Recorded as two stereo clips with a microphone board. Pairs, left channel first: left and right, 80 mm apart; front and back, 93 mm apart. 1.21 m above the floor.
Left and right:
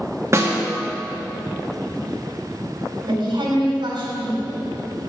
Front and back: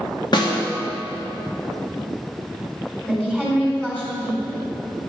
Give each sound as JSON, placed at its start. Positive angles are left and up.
{"t": 0.3, "sound": "a snare drum", "azimuth_deg": -35, "distance_m": 1.3}
{"t": 3.0, "sound": "a woman speaking", "azimuth_deg": -75, "distance_m": 3.5}